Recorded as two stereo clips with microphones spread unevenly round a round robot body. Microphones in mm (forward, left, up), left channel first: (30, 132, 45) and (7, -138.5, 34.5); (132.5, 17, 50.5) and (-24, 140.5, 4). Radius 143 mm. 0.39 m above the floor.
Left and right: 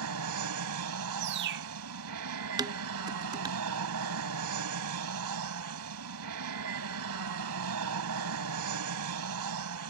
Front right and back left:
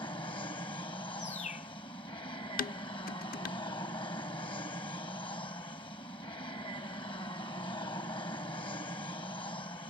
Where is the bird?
100° right.